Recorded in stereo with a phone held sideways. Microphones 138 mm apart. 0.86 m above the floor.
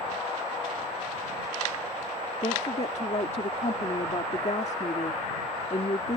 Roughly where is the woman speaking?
Left.